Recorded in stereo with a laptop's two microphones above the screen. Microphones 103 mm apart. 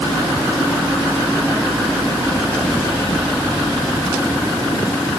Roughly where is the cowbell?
I don't hear a cowbell.